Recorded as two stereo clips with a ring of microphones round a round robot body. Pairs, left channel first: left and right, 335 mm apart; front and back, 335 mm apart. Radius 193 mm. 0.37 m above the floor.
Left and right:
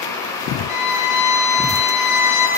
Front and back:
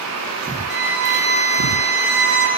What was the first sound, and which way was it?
A violin, 120° left.